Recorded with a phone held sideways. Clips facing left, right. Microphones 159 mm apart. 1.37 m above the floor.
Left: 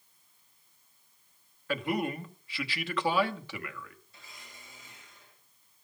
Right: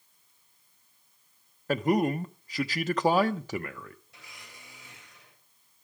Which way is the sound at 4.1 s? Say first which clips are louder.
Right 1 dB; 75° right (ahead or behind).